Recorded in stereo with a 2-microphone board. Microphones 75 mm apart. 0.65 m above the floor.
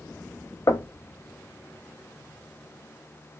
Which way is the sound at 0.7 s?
40° left (ahead or behind).